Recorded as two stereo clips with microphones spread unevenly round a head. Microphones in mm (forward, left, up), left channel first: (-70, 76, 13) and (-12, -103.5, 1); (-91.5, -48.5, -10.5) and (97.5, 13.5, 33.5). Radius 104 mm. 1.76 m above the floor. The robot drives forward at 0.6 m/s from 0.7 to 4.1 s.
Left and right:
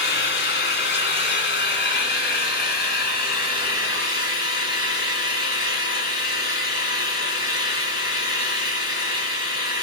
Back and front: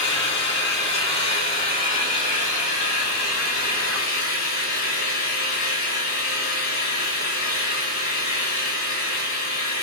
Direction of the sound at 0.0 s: 130° left.